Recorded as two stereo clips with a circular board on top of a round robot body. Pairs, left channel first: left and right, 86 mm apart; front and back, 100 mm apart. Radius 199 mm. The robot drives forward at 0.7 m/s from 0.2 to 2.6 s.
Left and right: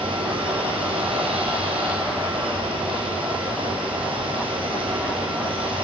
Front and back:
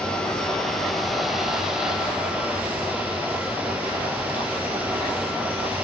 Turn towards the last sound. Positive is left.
turn(degrees=-105)